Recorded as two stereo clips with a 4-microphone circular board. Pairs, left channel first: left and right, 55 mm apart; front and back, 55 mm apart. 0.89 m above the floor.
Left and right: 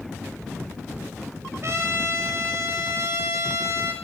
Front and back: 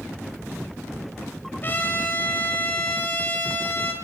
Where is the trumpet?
55° right, 6.5 m.